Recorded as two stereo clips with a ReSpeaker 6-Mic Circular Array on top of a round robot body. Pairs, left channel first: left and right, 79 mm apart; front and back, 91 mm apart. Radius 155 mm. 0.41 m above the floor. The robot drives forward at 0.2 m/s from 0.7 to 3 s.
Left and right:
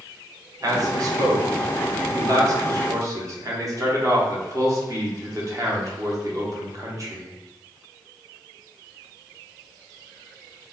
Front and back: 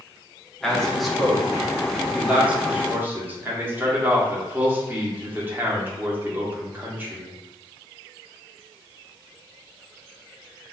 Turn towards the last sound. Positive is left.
turn(degrees=-115)